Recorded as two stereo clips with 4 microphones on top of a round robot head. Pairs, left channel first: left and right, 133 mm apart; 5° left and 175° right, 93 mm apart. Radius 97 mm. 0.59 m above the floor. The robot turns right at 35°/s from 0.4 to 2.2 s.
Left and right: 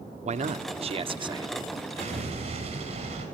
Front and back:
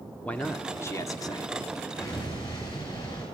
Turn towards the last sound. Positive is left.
turn(degrees=-50)